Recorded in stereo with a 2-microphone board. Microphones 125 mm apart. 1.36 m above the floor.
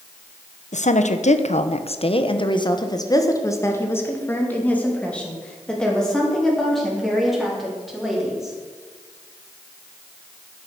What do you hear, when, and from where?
0.7 s a woman speaking: 75° left (ahead or behind), 1.1 m; by 8.6 s centre (ahead or behind), 4 m